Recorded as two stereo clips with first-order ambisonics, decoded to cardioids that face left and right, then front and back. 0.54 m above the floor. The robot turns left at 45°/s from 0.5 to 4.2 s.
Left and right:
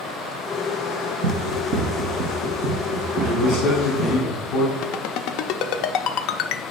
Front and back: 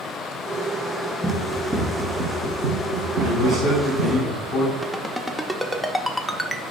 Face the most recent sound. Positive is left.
turn(degrees=90)